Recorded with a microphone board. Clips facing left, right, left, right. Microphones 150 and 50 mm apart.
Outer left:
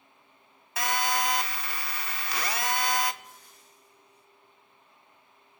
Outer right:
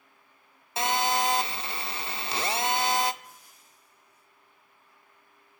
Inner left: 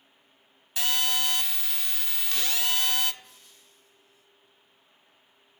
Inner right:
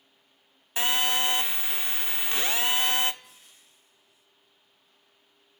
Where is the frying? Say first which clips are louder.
Even, even; 10° right (ahead or behind), 6 m.